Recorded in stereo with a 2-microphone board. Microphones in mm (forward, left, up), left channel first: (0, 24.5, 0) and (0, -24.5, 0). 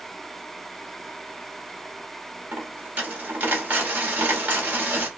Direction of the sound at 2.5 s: 30° right (ahead or behind).